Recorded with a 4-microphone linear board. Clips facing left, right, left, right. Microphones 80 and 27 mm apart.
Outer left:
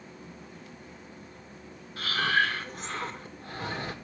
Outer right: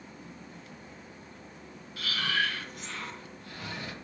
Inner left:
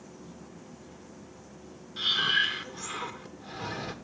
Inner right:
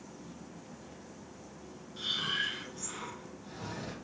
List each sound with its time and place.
2.0 s breathing: 35° left (ahead or behind), 1.6 m